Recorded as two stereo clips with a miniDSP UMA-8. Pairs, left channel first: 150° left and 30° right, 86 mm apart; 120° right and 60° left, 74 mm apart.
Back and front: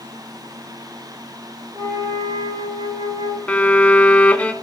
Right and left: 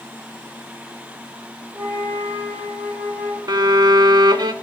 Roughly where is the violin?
Left.